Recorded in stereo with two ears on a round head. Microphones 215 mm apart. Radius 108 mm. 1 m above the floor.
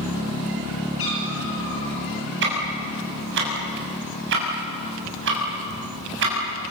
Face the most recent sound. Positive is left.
turn(degrees=-55)  # may be behind; listen again after turning